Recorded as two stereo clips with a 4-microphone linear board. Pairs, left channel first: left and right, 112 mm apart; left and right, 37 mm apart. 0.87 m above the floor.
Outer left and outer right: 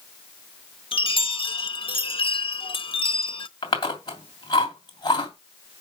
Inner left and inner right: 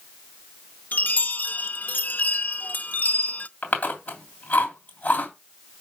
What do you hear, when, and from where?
0.9 s a chime: 50° left (ahead or behind), 0.6 m
3.6 s chewing: 40° left (ahead or behind), 2.5 m